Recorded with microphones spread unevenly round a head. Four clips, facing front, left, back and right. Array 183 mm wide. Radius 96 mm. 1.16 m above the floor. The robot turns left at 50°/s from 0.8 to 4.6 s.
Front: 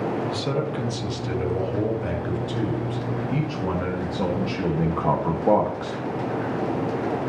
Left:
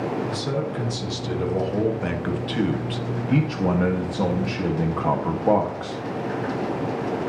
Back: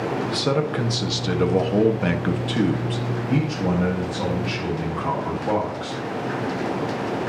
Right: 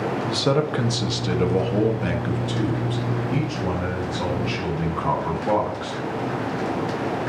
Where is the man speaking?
125° right, 2 m; by 6.0 s 45° left, 2 m.